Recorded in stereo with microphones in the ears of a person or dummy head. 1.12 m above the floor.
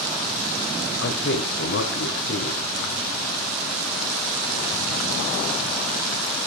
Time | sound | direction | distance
1.0 | a man speaking | 75° left (ahead or behind) | 3 m